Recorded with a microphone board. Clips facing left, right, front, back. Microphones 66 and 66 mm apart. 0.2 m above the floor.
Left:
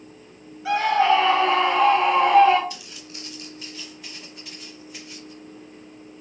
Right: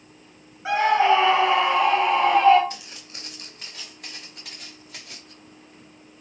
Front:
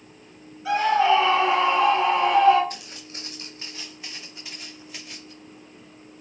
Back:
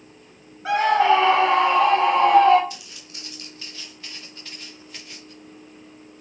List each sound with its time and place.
0.7 s a scream: 145° right, 2.5 m; by 2.6 s 175° left, 3.5 m
2.7 s footsteps: 45° right, 3.5 m; by 5.3 s 85° right, 5 m